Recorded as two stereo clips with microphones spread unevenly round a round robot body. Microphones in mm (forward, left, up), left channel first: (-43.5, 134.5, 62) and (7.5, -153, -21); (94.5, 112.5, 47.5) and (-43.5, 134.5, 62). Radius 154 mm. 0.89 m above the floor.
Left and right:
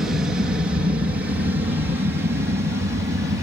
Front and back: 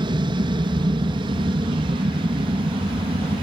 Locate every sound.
0.0 s an aircraft: 145° right; by 3.4 s 140° right